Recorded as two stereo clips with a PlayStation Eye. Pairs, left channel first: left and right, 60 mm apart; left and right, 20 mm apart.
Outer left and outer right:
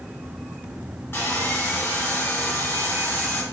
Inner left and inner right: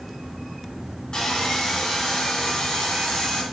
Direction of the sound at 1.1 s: 45° left (ahead or behind).